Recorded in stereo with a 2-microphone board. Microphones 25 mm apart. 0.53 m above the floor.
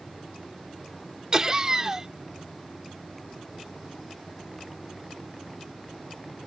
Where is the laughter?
25° right (ahead or behind).